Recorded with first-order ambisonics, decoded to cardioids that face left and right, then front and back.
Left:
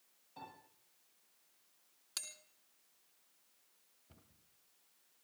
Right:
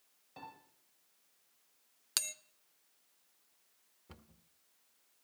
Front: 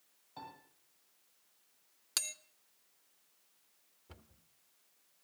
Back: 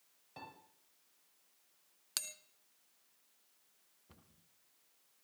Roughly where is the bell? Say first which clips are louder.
Right 9 dB, front 4 dB; right.